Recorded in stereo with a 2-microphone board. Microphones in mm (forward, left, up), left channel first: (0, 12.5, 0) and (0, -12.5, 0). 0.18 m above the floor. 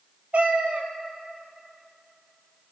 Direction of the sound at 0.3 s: 65° right (ahead or behind).